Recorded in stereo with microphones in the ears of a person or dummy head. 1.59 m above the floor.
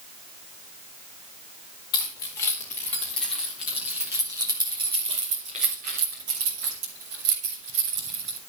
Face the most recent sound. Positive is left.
turn(degrees=-75)  # may be behind; listen again after turning